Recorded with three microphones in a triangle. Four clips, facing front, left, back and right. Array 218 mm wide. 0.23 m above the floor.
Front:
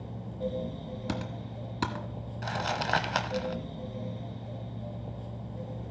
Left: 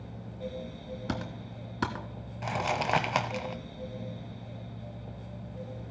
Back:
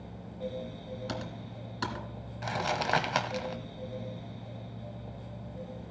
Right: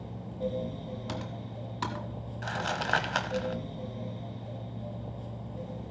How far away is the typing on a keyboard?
About 1.4 m.